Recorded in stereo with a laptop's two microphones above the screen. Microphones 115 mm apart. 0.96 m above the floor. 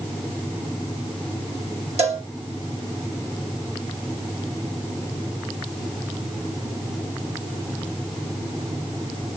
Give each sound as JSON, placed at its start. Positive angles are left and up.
{"t": 2.0, "sound": "a cowbell", "side_deg": -60, "distance_m": 1.6}